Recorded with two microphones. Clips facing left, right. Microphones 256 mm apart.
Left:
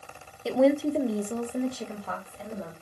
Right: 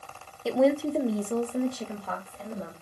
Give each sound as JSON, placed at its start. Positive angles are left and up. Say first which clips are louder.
{"t": 0.5, "sound": "a woman speaking", "louder": "left 1 dB", "side_deg": 0, "distance_m": 0.6}